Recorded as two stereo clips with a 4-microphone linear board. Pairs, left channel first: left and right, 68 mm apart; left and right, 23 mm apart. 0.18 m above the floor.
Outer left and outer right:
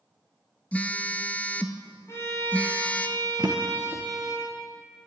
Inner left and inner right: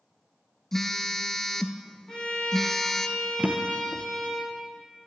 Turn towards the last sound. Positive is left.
turn(degrees=-55)  # may be behind; listen again after turning